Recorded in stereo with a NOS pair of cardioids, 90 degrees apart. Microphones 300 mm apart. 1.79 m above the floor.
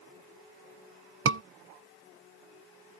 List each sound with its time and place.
1.2 s a scream: 45° right